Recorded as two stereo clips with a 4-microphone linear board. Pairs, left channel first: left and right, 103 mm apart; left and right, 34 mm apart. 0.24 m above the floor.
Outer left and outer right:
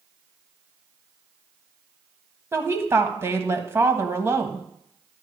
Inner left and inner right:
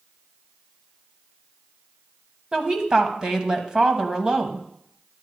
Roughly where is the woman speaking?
Right.